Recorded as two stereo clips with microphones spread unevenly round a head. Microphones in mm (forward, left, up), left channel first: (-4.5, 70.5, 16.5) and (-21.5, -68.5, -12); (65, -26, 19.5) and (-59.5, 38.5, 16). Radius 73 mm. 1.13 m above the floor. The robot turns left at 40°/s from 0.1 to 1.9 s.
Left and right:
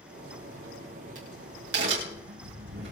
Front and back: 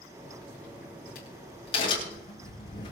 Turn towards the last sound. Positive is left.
turn(degrees=-85)